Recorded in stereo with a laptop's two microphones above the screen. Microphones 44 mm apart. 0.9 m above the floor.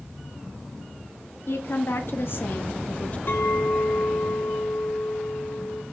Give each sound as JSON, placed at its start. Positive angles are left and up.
{"t": 1.5, "sound": "a woman speaking", "side_deg": 65, "distance_m": 2.0}
{"t": 3.3, "sound": "a clink", "side_deg": 55, "distance_m": 4.5}